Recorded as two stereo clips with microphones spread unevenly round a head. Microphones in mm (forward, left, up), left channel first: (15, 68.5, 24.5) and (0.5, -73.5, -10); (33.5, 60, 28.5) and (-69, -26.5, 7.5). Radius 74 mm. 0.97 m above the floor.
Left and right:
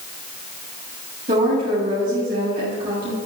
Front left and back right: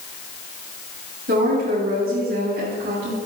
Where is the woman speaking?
130° right, 7.5 m.